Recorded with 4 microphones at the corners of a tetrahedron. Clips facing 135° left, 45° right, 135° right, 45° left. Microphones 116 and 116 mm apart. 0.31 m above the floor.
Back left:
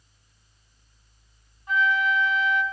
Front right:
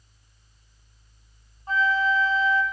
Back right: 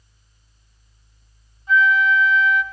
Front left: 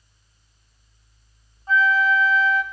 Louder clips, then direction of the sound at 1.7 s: Front right 1 dB, back right 2 dB; straight ahead.